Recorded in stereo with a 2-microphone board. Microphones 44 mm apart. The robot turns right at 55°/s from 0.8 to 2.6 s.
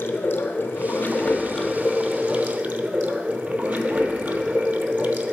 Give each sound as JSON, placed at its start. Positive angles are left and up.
{"t": 0.0, "sound": "running water", "azimuth_deg": 120, "distance_m": 0.7}